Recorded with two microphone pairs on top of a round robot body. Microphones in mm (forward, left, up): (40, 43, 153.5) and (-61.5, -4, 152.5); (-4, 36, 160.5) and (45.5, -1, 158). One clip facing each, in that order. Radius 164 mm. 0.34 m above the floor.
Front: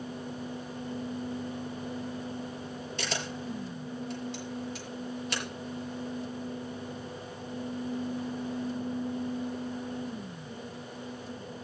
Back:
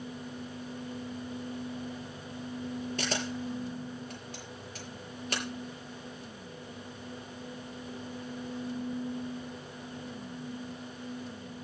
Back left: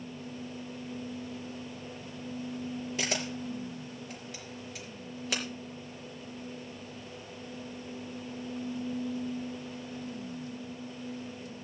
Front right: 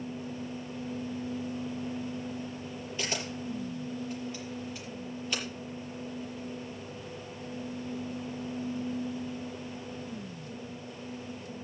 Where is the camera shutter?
160° left, 5.5 m.